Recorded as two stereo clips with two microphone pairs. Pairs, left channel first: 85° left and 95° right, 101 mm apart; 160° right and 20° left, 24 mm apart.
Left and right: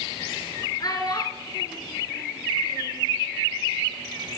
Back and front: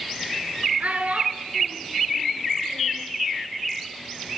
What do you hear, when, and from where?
0.8 s a child speaking: 35° left, 1.9 m